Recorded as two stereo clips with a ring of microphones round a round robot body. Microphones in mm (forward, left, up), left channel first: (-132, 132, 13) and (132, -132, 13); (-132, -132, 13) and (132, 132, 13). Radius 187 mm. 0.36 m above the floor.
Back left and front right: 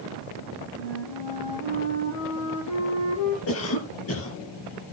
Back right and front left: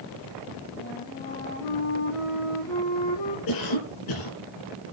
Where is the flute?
Straight behind, 6 m.